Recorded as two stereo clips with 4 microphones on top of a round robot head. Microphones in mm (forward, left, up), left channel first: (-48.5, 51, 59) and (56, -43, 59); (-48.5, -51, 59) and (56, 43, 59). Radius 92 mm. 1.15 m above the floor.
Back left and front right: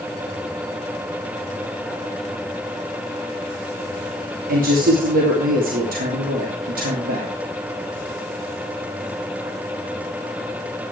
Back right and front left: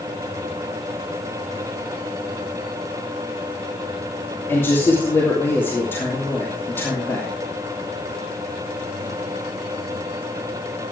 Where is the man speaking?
65° right, 2.5 m.